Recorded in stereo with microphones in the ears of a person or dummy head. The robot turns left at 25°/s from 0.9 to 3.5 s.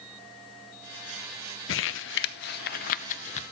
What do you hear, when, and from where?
1.7 s crumpling: 70° left (ahead or behind), 0.6 m; by 3.4 s 40° left (ahead or behind), 0.6 m